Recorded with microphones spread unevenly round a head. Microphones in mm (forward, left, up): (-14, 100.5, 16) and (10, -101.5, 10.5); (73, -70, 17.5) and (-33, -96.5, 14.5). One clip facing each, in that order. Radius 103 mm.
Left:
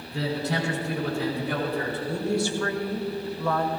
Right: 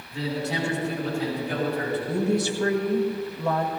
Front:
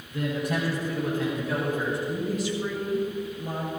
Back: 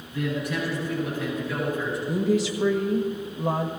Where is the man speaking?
70° left, 6 m; by 2.0 s 60° left, 4.5 m.